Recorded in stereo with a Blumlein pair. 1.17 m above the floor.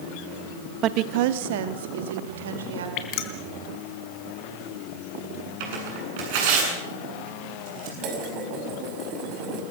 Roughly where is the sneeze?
No sneeze in this recording.